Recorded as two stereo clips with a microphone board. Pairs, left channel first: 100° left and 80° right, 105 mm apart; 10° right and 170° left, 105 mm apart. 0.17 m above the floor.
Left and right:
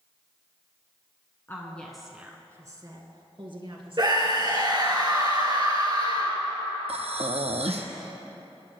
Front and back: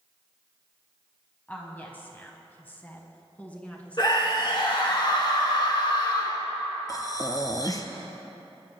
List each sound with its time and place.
1.5 s a woman speaking: 55° left, 1.5 m; by 5.0 s 90° right, 3.5 m
4.0 s a scream: 45° right, 2 m
6.9 s breathing: 65° right, 0.9 m